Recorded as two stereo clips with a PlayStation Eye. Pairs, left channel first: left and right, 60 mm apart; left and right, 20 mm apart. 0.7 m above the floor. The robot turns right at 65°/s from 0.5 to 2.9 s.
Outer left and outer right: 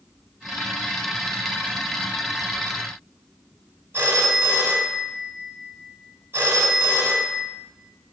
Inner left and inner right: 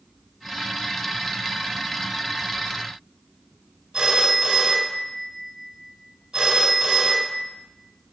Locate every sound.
3.9 s a phone ringing: 40° right (ahead or behind), 4 m